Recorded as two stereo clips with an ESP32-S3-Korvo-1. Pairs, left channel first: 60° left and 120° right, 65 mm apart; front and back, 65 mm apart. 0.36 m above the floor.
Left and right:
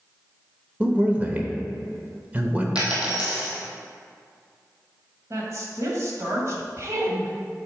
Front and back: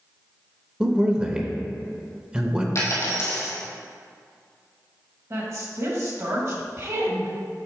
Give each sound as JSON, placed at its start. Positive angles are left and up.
{"t": 0.8, "sound": "a man speaking", "azimuth_deg": -130, "distance_m": 0.9}
{"t": 2.8, "sound": "a dropped coin", "azimuth_deg": -45, "distance_m": 2.0}
{"t": 5.3, "sound": "a woman speaking", "azimuth_deg": -150, "distance_m": 1.9}